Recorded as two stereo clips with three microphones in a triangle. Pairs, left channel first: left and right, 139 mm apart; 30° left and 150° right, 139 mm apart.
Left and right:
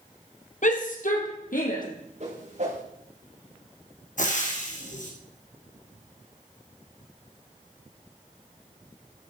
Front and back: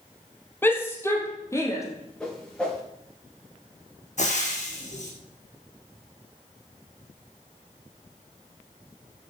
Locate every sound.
0.6 s a shout: 105° left, 2.5 m; by 1.8 s 100° left, 4 m
2.2 s a whoosh: 55° right, 5.5 m
4.2 s frying: 65° left, 3.5 m